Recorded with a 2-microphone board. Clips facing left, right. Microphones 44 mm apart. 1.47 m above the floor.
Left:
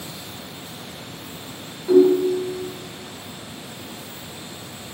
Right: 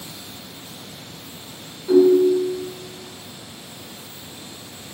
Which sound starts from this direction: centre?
A ringtone, at 1.9 s.